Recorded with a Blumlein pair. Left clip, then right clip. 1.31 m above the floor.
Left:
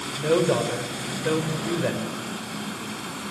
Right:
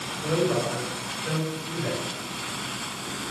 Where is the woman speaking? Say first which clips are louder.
Left 4 dB; 60° left, 6 m.